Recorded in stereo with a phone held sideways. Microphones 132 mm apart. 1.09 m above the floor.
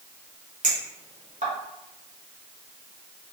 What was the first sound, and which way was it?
A clink, 70° right (ahead or behind).